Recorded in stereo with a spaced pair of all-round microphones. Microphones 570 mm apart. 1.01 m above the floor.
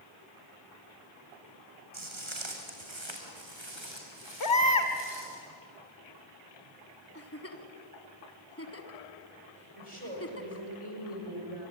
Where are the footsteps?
55° right (ahead or behind), 2.5 m; by 5.4 s 50° right (ahead or behind), 4.5 m.